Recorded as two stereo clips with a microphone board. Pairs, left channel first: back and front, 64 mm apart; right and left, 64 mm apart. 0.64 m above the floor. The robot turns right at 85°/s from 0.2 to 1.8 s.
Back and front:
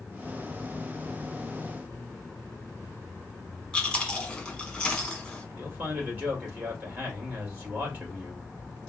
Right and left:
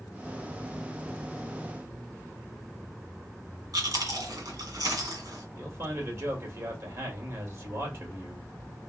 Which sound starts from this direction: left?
Chewing, at 3.7 s.